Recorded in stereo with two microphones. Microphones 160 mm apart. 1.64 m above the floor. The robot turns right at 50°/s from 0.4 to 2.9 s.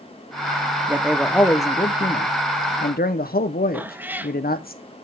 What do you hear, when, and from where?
0.9 s a man speaking: 15° right, 0.8 m; by 4.7 s 85° left, 0.8 m
3.7 s a cat meowing: 10° right (ahead or behind), 0.8 m